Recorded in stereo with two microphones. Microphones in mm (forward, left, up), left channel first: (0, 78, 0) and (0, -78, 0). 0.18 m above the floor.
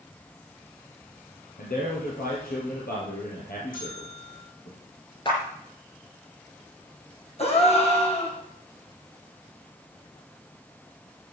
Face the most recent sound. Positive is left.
turn(degrees=40)  # may be behind; listen again after turning